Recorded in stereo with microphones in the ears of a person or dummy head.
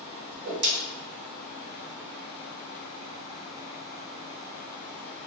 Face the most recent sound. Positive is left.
turn(degrees=-55)  # may be behind; listen again after turning